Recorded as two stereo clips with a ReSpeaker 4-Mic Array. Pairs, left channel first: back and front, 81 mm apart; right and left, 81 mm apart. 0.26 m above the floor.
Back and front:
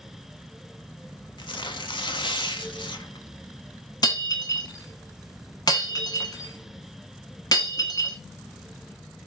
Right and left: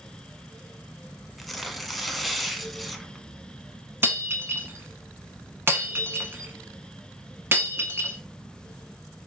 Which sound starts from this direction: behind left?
Breaking glass, at 4.0 s.